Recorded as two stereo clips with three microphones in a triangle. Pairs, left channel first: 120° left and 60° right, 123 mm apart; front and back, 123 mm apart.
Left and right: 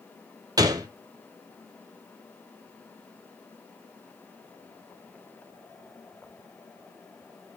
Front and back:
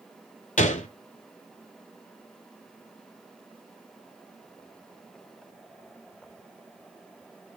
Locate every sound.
0.6 s a gunshot: straight ahead, 0.7 m